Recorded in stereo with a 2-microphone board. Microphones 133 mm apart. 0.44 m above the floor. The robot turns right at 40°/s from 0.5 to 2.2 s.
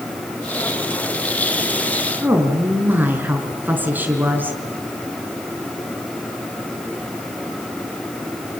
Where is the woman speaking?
15° right (ahead or behind), 5 m.